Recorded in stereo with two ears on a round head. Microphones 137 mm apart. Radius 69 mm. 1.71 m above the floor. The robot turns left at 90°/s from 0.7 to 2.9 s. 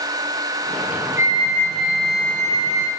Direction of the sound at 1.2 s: 15° right.